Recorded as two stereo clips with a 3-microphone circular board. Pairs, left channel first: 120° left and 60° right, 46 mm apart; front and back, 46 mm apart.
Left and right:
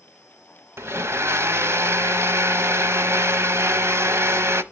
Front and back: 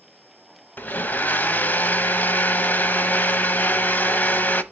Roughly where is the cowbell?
I don't hear a cowbell.